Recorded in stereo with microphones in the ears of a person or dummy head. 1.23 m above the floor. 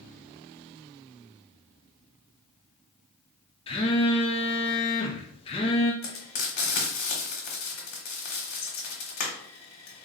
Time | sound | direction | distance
3.7 | a phone buzzing | 25° left (ahead or behind) | 0.5 m
6.0 | frying | 45° left (ahead or behind) | 1.1 m